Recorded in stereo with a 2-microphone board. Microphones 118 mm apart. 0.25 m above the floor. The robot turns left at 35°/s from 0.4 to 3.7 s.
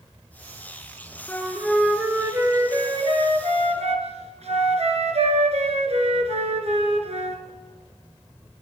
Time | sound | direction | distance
1.3 | a flute | 15° left | 2 m